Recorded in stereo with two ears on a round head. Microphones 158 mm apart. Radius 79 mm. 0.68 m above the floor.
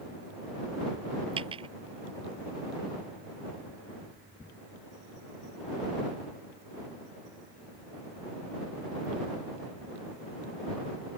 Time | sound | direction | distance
1.4 | a dropped coin | 30° right (ahead or behind) | ?